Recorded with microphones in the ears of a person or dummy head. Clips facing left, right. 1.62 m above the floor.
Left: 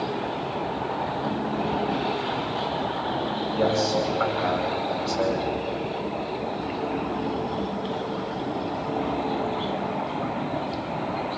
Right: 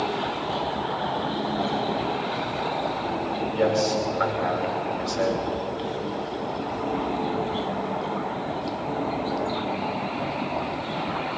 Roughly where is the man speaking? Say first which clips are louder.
Right 1 dB; centre.